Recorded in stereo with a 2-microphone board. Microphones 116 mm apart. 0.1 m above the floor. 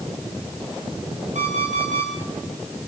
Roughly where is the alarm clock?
Right.